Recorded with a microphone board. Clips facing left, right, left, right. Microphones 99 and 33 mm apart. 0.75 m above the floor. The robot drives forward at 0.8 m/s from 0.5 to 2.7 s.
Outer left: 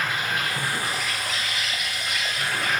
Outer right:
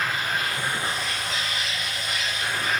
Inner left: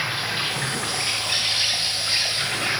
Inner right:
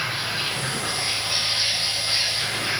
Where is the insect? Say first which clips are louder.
Even, inner left 1 dB; 75° left (ahead or behind), 2.5 m; by 2.8 s 65° left (ahead or behind), 3 m.